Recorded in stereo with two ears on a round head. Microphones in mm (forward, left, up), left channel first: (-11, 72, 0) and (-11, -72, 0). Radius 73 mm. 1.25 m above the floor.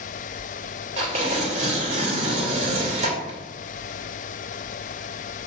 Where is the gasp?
No gasp in this recording.